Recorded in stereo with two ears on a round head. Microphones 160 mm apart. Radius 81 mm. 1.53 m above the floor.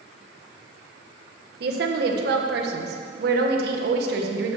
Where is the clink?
No clink in this recording.